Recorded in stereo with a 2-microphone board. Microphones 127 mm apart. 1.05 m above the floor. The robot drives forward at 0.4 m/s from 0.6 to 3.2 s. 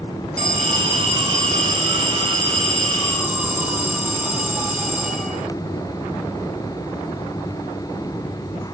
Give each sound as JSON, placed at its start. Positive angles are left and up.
{"t": 0.4, "sound": "an alarm", "side_deg": -65, "distance_m": 3.0}